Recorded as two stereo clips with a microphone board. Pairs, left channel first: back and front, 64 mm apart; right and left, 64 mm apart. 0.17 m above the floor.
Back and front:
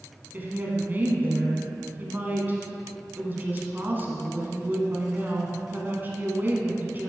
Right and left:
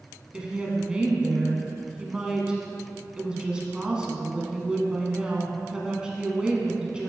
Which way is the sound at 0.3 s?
25° left.